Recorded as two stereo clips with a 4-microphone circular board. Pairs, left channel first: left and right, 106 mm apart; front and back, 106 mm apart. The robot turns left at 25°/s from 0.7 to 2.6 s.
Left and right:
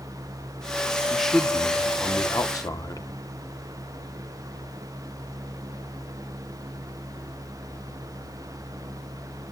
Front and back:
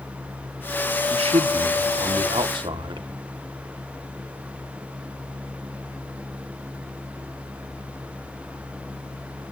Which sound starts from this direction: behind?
A man speaking, at 1.1 s.